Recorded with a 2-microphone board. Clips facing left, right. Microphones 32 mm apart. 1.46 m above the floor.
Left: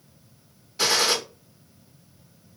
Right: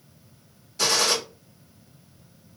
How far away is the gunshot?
About 1.1 m.